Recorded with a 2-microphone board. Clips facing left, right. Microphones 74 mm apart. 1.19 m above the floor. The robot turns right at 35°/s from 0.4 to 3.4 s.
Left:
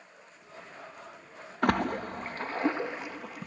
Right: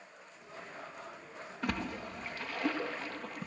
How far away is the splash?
About 0.9 m.